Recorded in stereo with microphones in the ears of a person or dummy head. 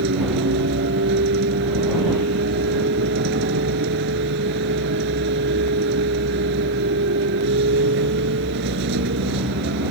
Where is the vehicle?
55° right (ahead or behind).